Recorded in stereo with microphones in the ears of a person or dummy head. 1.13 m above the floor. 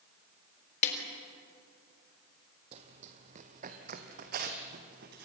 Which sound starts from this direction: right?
Running footsteps, at 2.7 s.